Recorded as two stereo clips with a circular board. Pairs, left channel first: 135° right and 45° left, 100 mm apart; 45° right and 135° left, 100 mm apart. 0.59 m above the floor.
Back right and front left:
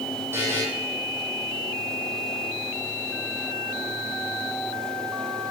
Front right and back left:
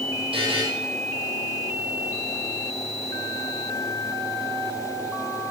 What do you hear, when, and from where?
0.3 s a buzzer: 110° left, 3.5 m